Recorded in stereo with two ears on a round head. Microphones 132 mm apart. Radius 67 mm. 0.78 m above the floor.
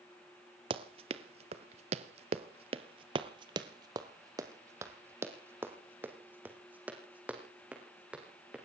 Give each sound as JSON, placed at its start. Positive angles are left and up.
{"t": 0.7, "sound": "running footsteps", "side_deg": -40, "distance_m": 1.2}